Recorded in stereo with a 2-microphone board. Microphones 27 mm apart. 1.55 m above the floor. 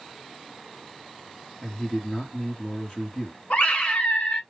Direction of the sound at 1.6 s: 15° left (ahead or behind).